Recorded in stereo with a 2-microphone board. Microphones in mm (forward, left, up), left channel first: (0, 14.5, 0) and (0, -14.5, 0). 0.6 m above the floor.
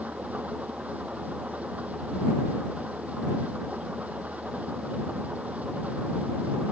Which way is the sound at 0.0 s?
60° right (ahead or behind).